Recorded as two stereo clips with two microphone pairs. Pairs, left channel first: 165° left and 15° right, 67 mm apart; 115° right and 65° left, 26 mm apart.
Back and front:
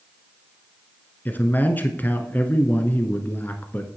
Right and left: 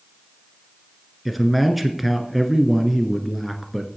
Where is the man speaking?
155° left, 1.2 m.